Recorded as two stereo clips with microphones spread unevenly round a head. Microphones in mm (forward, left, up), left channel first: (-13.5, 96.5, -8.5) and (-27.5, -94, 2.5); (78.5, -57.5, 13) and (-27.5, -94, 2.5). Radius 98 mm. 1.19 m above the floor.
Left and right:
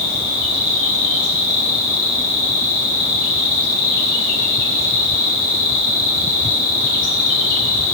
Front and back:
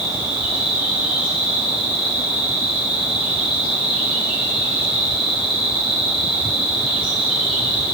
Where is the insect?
85° left, 3.5 m.